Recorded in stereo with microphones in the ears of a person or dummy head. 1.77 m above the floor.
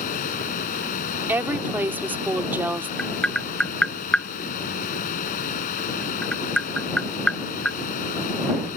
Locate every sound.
0.0 s a fan: 35° left (ahead or behind)
1.3 s a woman speaking: 20° right (ahead or behind)
3.0 s tapping: 10° left (ahead or behind)